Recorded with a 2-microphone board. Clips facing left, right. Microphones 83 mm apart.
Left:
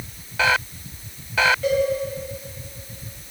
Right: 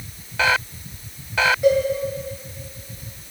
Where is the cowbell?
15° right (ahead or behind), 3.5 m.